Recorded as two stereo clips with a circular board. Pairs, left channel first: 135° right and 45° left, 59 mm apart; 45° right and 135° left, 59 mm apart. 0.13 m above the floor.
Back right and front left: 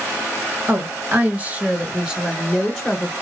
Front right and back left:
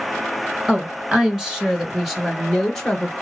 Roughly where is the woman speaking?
Ahead left.